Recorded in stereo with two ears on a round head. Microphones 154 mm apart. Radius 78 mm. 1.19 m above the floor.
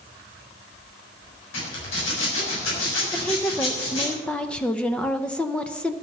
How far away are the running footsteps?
I don't hear running footsteps.